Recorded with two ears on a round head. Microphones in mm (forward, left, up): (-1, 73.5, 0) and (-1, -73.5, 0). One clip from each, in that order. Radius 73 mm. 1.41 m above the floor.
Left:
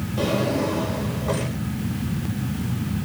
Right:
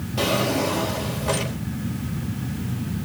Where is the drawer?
50° right (ahead or behind), 5 m.